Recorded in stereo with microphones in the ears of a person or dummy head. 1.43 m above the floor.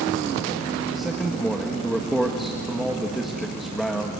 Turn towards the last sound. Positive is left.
turn(degrees=0)  # may be behind; listen again after turning